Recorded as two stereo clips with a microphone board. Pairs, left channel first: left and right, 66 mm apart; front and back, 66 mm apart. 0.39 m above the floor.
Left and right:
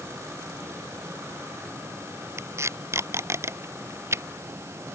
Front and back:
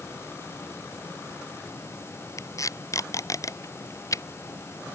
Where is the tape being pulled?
40° right.